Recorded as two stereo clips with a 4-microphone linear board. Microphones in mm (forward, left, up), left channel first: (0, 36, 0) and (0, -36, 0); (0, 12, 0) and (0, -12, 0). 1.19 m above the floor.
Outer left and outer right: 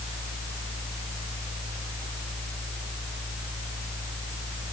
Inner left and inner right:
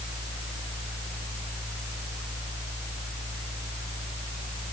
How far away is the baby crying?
I don't hear a baby crying.